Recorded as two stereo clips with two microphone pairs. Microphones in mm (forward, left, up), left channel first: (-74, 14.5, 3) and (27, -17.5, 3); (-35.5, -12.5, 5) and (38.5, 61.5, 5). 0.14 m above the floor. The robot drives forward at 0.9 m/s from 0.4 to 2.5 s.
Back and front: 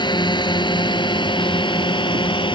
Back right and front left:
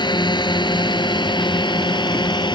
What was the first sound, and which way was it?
A drone, 165° right.